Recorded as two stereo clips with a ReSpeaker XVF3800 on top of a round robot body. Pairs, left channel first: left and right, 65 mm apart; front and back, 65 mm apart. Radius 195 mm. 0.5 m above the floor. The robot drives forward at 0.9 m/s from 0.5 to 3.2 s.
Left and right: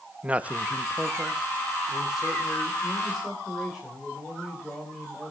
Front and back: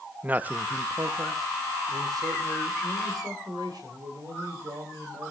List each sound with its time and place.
0.2 s a man speaking: 140° right, 0.8 m; by 5.3 s 175° right, 3 m